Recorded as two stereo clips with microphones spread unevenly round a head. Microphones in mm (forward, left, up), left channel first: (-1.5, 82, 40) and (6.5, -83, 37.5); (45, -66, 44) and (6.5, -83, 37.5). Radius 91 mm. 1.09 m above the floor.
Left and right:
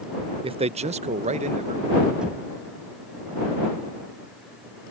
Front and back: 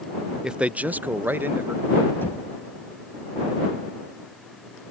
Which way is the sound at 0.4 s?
110° right.